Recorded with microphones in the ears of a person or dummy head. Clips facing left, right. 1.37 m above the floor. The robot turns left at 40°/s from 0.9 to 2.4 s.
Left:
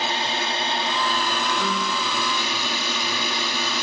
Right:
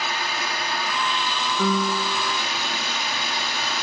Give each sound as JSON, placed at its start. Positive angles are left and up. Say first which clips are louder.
{"t": 0.0, "sound": "a drone", "louder": "left 3 dB", "azimuth_deg": 155}
{"t": 1.6, "sound": "a piano", "louder": "right 3 dB", "azimuth_deg": -110}